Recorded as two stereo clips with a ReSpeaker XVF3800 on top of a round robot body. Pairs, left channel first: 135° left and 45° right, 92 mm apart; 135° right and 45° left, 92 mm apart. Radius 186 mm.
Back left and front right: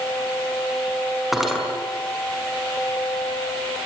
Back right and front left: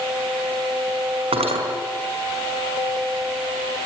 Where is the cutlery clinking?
45° left, 5.5 m.